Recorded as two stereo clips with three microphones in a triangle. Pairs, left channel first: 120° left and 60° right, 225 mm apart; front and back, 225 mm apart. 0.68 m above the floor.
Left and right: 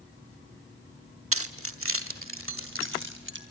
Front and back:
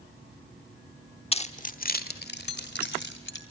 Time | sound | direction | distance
1.3 | keys jangling | 60° right | 1.0 m